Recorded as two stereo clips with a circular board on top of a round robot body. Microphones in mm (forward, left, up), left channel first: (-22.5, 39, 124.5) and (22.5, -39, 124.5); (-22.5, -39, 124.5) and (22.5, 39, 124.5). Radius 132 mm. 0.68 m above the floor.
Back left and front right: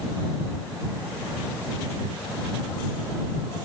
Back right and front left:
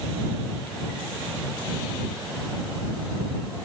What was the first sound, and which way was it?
Only background noise.